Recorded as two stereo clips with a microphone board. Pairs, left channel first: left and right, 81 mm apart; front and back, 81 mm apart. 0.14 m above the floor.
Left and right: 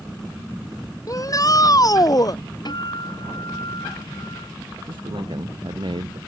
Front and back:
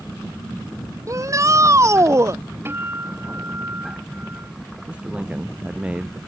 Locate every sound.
1.1 s a shout: 135° left; by 2.4 s 130° left
2.6 s a guitar: 120° left
4.9 s a man speaking: 105° right